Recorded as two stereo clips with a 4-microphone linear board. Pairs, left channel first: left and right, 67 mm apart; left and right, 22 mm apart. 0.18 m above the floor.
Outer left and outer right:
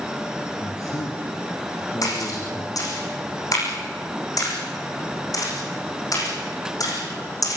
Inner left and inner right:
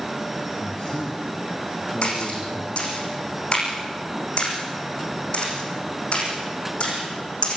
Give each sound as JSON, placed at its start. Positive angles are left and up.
{"t": 0.6, "sound": "a man speaking", "side_deg": 55, "distance_m": 4.0}
{"t": 2.0, "sound": "a splash", "side_deg": 60, "distance_m": 6.5}